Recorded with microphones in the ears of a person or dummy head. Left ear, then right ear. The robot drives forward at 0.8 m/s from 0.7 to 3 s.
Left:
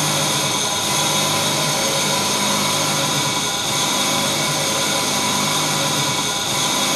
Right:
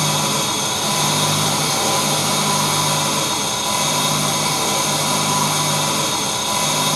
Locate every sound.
0.0 s an engine running: 55° left (ahead or behind), 2.5 m; by 7.0 s 30° left (ahead or behind), 3.5 m